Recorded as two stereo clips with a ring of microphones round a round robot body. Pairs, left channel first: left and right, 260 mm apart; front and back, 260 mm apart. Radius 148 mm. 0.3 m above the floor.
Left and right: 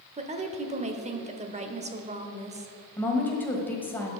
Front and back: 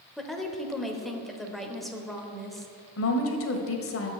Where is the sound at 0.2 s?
90° right, 0.9 m.